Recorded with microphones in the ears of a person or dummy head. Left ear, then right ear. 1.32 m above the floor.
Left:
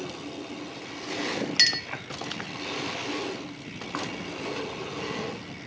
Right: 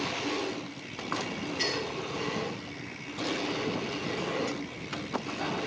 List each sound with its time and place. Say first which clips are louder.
1.6 s a clink: left 9 dB; 70° left (ahead or behind), 0.9 m